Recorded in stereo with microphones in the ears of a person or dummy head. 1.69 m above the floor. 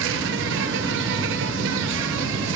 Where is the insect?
70° right (ahead or behind), 1.7 m.